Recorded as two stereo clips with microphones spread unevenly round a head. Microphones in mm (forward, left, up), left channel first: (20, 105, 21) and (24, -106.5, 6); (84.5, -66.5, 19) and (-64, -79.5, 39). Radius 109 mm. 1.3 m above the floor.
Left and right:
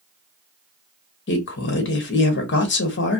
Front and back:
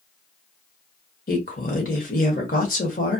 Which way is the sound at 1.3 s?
55° left.